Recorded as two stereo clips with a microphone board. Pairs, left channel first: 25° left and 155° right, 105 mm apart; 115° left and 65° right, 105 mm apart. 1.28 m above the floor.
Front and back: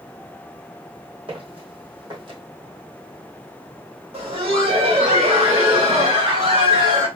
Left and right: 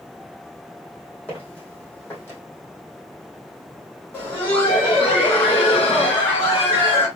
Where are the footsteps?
175° right, 2.5 m; by 2.4 s 175° left, 2.5 m.